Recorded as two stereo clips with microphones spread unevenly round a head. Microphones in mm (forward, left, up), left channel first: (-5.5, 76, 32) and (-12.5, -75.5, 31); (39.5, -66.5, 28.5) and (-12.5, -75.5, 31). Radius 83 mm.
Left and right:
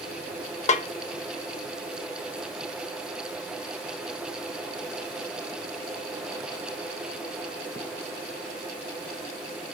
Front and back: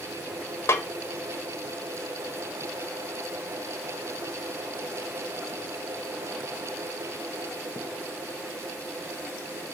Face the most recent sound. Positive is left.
turn(degrees=50)